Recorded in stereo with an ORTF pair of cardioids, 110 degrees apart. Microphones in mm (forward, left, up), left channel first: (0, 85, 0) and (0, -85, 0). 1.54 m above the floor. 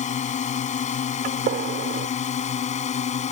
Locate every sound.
0.0 s a drone: 45° left
1.2 s a gunshot: 65° right